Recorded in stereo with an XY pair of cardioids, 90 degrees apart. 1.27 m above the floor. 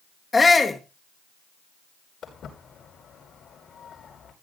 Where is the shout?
30° left, 1.7 m.